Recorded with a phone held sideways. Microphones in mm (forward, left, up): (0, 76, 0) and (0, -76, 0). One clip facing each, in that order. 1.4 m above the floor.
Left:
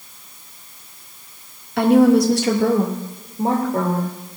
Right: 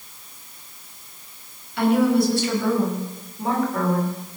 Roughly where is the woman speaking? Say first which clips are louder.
Left 5 dB; left.